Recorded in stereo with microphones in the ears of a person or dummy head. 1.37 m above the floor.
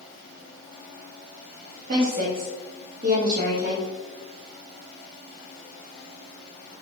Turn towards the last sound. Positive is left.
turn(degrees=-50)  # may be behind; listen again after turning